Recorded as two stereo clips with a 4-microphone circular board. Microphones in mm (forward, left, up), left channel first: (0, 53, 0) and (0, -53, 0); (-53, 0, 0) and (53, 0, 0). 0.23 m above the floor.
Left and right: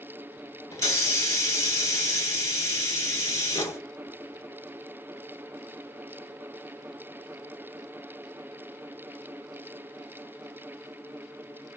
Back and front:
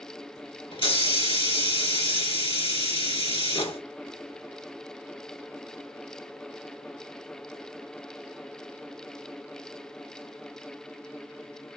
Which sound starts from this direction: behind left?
A hiss, at 0.7 s.